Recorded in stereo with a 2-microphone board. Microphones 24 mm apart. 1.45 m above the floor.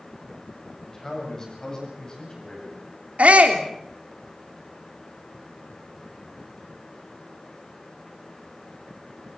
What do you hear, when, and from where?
0.8 s a man speaking: 25° left (ahead or behind), 7.5 m; by 2.8 s 35° left (ahead or behind), 9.5 m
3.2 s a shout: 65° right (ahead or behind), 3 m